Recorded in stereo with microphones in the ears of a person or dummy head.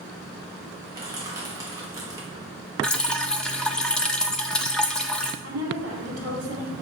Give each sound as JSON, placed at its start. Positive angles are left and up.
{"t": 0.9, "sound": "crushing", "side_deg": -20, "distance_m": 1.3}
{"t": 2.8, "sound": "dripping", "side_deg": 5, "distance_m": 0.7}
{"t": 5.4, "sound": "a woman speaking", "side_deg": -90, "distance_m": 2.5}